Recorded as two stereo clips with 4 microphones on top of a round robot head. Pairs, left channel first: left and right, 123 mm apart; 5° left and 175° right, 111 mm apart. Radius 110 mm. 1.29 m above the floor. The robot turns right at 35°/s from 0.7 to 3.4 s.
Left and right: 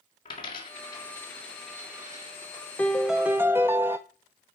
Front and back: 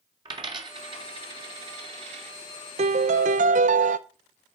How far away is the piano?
About 0.5 m.